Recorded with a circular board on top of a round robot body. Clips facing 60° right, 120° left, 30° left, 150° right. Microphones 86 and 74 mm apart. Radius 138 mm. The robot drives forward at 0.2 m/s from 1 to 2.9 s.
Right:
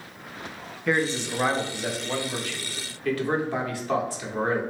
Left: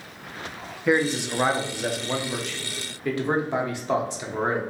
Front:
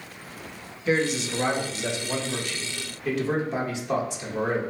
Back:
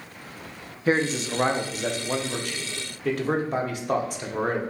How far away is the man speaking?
About 0.6 m.